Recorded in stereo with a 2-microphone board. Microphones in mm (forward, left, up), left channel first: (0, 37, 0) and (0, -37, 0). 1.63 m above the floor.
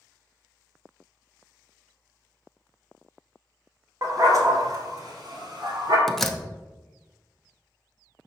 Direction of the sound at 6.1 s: 5° left (ahead or behind).